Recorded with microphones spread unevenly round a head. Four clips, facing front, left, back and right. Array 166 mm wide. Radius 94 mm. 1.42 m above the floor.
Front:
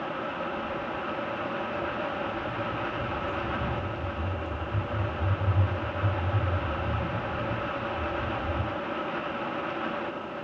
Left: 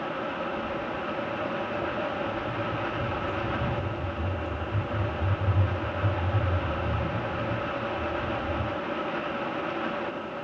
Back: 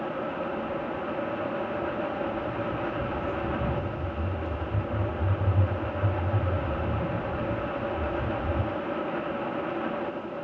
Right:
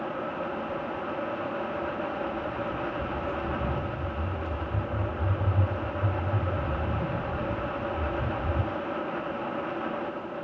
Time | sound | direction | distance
0.6 | footsteps | 105° left | 2 m